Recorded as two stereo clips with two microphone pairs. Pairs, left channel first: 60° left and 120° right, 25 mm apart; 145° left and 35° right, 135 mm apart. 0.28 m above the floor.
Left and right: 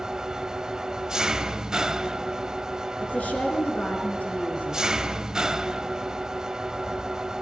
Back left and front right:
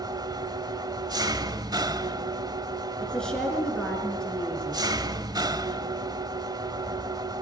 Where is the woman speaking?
60° left, 5 m.